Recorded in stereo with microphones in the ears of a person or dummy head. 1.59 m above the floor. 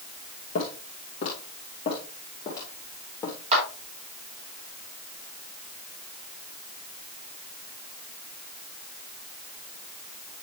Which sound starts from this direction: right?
A clap, at 3.5 s.